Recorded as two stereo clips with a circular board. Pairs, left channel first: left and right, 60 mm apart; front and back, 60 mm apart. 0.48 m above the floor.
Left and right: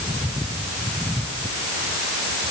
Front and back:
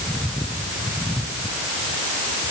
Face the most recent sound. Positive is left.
No sound to turn to.